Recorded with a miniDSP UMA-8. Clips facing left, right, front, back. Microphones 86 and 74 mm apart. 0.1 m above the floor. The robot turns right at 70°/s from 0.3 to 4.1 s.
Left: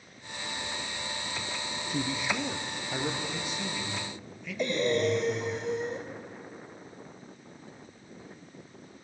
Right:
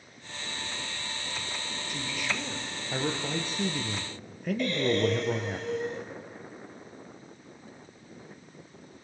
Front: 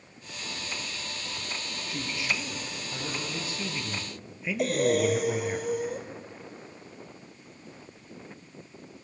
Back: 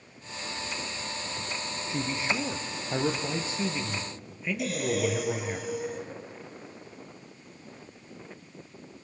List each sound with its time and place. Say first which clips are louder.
1.9 s a man speaking: left 4 dB, back 3 dB; 120° left, 2 m; by 5.6 s 85° right, 2 m
4.6 s breathing: even, front 5 dB; 25° left, 1.9 m